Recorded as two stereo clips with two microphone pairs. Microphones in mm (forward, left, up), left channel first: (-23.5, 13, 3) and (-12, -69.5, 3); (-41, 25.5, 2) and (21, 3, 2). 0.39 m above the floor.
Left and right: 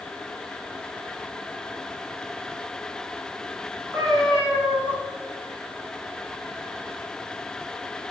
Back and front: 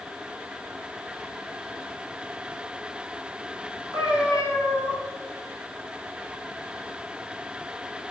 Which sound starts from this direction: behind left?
A cat meowing, at 3.9 s.